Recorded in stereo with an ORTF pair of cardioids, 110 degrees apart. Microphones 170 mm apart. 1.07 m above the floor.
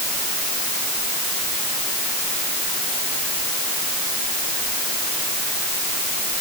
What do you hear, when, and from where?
Only background noise.